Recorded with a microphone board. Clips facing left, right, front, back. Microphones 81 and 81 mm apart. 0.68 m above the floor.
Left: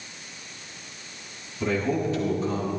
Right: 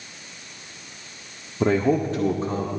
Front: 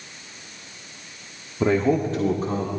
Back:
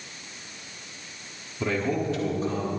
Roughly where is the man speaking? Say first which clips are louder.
Right 5 dB, front 7 dB; ahead right.